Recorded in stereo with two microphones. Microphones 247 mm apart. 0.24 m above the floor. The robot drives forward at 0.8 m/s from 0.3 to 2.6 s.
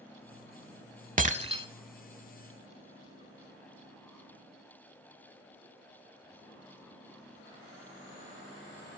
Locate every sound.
1.2 s breaking glass: 35° right (ahead or behind), 0.6 m; by 1.6 s 20° right (ahead or behind), 0.9 m